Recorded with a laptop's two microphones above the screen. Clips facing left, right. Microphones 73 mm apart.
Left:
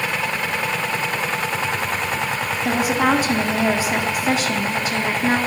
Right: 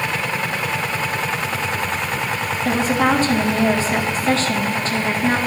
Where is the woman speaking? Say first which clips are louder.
Right 1 dB; 10° left (ahead or behind), 1.9 m.